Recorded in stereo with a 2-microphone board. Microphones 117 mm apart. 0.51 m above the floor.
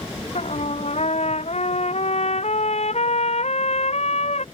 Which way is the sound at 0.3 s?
70° left (ahead or behind).